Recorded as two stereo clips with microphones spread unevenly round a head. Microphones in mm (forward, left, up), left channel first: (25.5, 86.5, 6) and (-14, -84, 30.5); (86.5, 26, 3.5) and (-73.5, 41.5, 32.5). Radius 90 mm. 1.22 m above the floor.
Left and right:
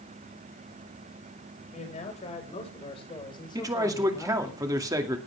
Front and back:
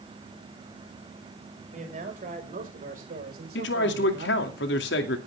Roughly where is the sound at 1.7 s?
Behind left.